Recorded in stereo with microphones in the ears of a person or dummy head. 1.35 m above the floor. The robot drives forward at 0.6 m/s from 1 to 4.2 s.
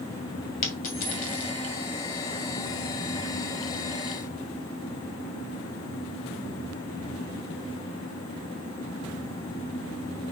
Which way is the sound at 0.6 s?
45° left (ahead or behind).